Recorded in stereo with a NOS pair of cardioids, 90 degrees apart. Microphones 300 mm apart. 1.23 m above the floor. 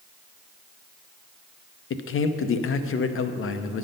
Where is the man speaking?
45° left, 0.7 m.